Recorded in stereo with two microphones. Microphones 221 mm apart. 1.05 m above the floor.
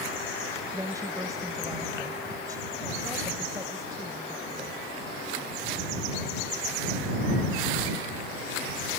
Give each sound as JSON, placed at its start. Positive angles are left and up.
{"t": 0.7, "sound": "a woman speaking", "side_deg": -15}